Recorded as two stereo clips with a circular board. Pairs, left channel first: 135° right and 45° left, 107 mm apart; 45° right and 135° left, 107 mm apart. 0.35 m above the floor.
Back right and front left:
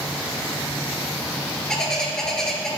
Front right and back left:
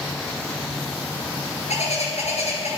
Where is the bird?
50° right, 3 m.